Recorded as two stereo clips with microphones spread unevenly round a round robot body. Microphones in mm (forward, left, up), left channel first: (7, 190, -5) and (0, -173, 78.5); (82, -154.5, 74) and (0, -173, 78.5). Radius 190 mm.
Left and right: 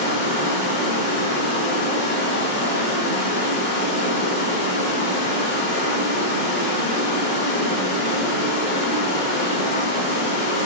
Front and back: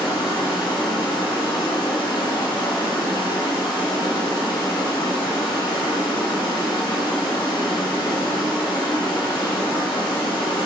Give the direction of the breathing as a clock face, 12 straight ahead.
I don't hear breathing.